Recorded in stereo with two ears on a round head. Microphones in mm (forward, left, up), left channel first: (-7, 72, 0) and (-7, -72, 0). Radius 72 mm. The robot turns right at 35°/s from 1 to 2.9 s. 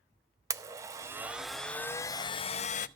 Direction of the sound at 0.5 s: 20° right.